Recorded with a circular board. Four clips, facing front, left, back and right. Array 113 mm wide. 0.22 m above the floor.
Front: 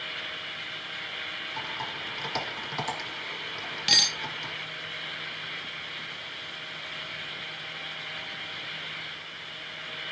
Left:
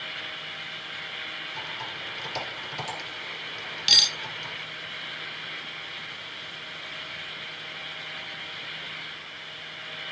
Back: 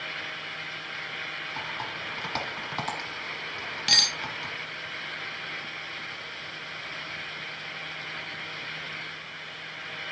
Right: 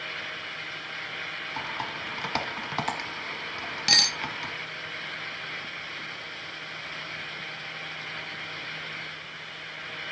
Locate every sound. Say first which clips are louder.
1.6 s typing on a keyboard: right 6 dB, even; 105° right, 1.5 m
3.9 s cutlery clinking: right 4 dB, even; 95° right, 0.7 m